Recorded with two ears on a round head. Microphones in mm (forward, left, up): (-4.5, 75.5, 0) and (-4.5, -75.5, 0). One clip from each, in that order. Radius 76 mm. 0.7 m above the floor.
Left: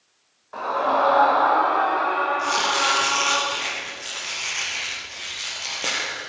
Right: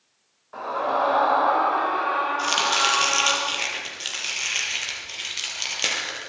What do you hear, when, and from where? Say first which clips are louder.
0.5 s a scream: left 3 dB; 10° left (ahead or behind), 3.5 m; by 3.4 s 35° right (ahead or behind), 4.5 m
2.4 s chopping: even; 70° right (ahead or behind), 6 m